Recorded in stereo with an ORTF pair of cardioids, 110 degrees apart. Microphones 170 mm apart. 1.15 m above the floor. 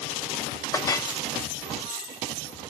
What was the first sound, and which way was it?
A clink, 20° left.